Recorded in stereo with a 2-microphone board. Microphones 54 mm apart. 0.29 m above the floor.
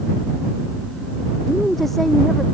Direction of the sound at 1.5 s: 5° left (ahead or behind).